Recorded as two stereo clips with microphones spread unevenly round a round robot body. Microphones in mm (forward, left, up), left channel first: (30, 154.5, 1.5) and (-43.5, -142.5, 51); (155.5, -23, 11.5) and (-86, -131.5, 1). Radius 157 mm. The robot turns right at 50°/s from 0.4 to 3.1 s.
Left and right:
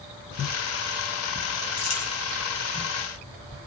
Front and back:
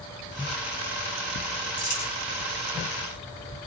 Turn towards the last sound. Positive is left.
turn(degrees=125)